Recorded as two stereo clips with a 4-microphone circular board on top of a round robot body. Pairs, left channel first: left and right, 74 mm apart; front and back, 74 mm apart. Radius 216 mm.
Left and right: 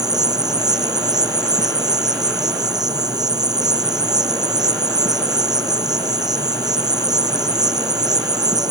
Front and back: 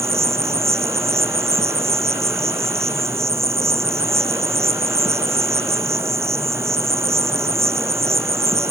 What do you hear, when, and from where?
0.0 s an insect: 125° right